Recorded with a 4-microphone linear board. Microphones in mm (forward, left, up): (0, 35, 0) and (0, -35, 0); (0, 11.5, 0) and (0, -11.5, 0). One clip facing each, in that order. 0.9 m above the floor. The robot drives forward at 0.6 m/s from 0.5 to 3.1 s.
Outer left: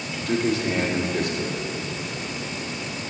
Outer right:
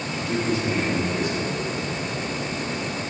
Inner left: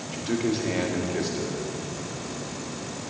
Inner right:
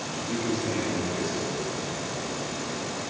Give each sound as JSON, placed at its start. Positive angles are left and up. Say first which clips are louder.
{"t": 0.1, "sound": "a man speaking", "louder": "outer left 2 dB, inner left 3 dB", "side_deg": 75, "distance_m": 1.7}